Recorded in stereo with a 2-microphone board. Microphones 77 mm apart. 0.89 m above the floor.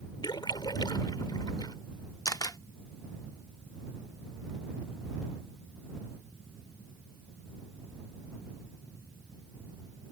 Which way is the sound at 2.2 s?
50° left (ahead or behind).